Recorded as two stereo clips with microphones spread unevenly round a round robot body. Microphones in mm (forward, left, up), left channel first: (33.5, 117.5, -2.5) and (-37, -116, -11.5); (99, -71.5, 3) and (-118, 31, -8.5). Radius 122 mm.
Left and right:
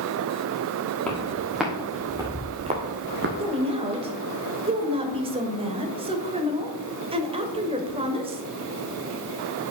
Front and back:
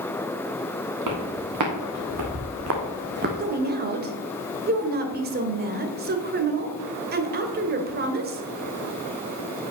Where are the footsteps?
160° left, 4 m; by 3.4 s 150° right, 2.0 m.